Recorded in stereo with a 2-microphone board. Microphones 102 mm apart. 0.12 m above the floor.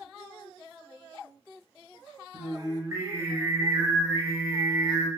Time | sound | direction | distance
2.3 | singing | 30° right (ahead or behind) | 1.1 m